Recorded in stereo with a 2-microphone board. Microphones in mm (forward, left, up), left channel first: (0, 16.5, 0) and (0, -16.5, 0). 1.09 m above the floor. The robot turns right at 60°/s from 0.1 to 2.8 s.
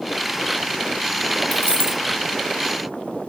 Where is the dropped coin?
40° left, 2 m; by 2.0 s 70° left, 2 m.